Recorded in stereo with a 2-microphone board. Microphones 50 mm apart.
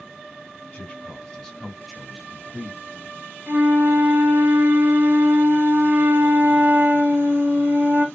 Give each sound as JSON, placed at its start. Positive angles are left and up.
{"t": 0.7, "sound": "a man speaking", "side_deg": 25, "distance_m": 1.8}
{"t": 3.5, "sound": "a flute", "side_deg": -55, "distance_m": 1.4}